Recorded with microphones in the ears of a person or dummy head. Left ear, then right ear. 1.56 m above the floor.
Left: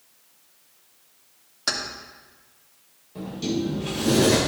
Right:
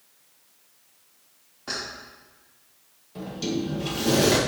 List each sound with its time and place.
1.7 s keys jangling: 70° left (ahead or behind), 2.5 m
3.1 s a sliding door: 15° right (ahead or behind), 1.3 m